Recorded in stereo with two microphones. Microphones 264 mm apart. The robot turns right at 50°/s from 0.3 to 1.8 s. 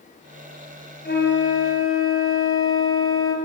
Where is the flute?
50° left, 3.5 m; by 3.4 s 85° left, 3.5 m.